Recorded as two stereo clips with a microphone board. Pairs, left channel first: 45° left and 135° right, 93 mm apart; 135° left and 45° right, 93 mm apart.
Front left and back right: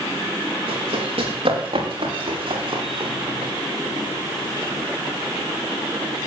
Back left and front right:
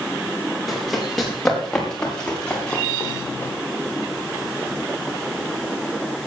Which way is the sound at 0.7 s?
135° right.